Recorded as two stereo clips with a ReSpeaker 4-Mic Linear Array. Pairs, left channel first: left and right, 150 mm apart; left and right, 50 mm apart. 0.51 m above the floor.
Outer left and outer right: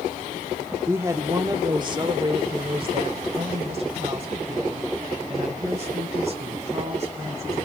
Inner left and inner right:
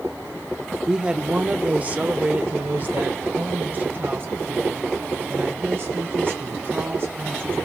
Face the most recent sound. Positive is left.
turn(degrees=-50)  # may be behind; listen again after turning